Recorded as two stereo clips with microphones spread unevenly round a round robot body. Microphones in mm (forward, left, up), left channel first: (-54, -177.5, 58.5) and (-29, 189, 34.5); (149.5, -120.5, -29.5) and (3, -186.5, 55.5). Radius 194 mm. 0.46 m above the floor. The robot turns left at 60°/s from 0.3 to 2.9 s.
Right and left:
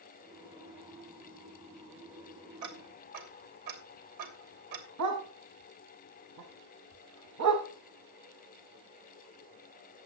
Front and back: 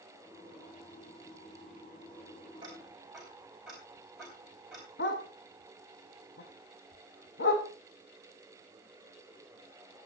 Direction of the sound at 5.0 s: 40° left.